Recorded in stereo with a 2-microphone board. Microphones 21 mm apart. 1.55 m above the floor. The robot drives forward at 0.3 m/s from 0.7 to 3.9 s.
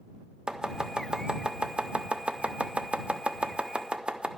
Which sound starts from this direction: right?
Chopping, at 0.5 s.